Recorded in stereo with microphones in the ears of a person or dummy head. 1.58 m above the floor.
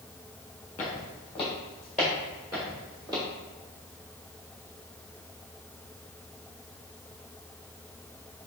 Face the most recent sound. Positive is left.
turn(degrees=-20)  # may be behind; listen again after turning